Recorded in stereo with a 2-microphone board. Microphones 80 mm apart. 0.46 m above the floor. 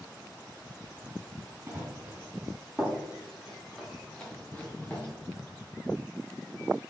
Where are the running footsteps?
30° right (ahead or behind), 3 m; by 5.1 s 20° left (ahead or behind), 3 m.